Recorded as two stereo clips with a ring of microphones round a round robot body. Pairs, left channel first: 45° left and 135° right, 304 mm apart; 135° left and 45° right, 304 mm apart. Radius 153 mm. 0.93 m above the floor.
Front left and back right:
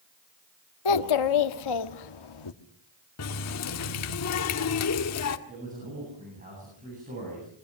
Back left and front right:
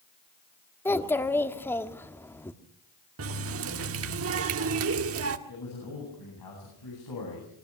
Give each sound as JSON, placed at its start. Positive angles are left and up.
{"t": 0.8, "sound": "a child speaking", "azimuth_deg": 50, "distance_m": 1.5}
{"t": 3.2, "sound": "a running tap", "azimuth_deg": 5, "distance_m": 1.5}
{"t": 5.5, "sound": "a man speaking", "azimuth_deg": 160, "distance_m": 9.5}